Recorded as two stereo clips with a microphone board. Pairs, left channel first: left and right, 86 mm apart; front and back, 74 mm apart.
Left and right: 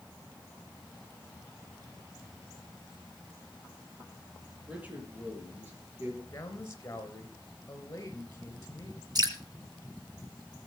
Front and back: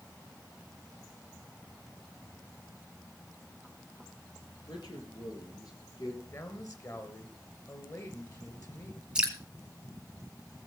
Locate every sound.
4.7 s a man speaking: 20° right, 4 m; by 6.2 s 30° right, 4.5 m
6.3 s a man speaking: 35° left, 2.5 m
9.2 s dripping: 105° right, 2 m